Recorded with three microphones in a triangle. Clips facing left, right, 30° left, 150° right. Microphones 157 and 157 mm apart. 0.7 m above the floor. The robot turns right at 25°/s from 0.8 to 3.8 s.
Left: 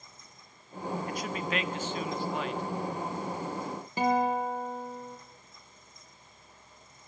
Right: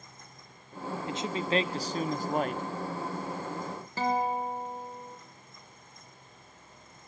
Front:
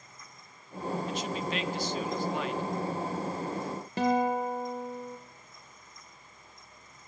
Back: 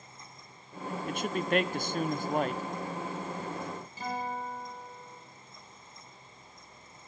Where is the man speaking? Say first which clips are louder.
Right 2 dB, back 2 dB; 155° right, 0.9 m; by 2.6 s 115° right, 0.9 m.